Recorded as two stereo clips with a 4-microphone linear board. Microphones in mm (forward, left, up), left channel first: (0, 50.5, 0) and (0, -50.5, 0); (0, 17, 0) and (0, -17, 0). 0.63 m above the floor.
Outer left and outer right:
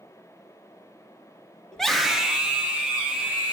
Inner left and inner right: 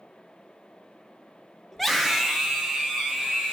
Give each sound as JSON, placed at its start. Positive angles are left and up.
{"t": 1.7, "sound": "a scream", "side_deg": 5, "distance_m": 0.6}